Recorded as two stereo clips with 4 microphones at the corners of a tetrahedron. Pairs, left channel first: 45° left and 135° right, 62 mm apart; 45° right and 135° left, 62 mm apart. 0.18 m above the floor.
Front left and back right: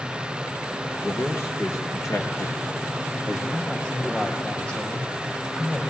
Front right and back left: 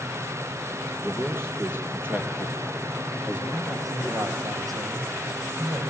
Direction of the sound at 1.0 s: 90° left.